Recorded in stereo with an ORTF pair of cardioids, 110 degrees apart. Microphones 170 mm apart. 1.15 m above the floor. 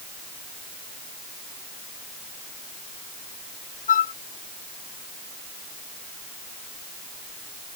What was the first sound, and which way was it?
A flute, 50° left.